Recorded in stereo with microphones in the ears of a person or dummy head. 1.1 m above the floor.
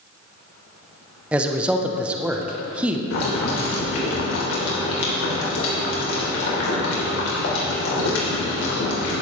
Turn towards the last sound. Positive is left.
turn(degrees=85)